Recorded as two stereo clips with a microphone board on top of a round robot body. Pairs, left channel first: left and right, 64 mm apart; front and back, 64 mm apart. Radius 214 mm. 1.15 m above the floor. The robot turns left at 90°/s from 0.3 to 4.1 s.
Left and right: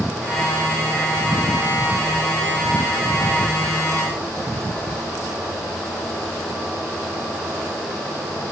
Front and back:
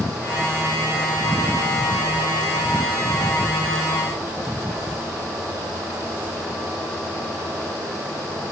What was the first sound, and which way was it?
Only background noise.